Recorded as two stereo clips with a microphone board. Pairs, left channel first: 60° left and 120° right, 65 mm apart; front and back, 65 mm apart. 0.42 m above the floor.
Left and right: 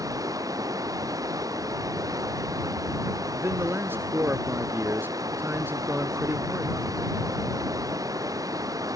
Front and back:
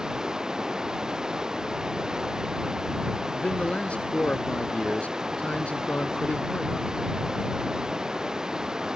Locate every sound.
0.0 s running water: 100° right
3.4 s a man speaking: 70° right